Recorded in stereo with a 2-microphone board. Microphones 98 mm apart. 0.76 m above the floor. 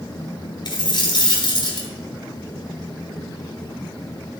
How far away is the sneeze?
No sneeze in this recording.